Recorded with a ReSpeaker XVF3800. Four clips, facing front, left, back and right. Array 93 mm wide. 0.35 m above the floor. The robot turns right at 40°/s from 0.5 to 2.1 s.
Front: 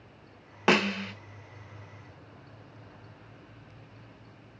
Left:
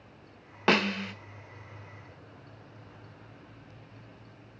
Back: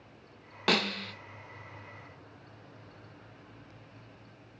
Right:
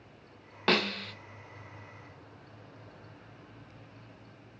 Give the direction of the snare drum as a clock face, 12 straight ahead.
11 o'clock.